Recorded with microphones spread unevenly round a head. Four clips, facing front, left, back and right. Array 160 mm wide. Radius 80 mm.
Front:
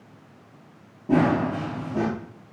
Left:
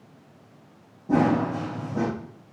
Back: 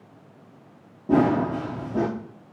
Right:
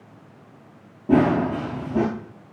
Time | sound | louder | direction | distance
1.1 | running footsteps | right 3 dB, back 1 dB | 115° right | 1.5 m